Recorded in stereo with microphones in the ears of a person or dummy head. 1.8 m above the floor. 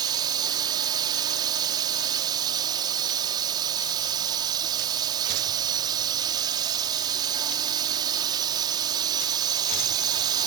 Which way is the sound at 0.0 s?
25° right (ahead or behind).